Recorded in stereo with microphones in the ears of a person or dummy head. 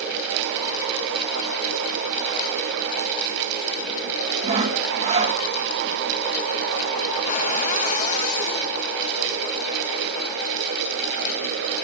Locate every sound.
4.4 s sawing: 25° right (ahead or behind), 0.9 m
7.3 s a cupboard door: 50° left (ahead or behind), 1.2 m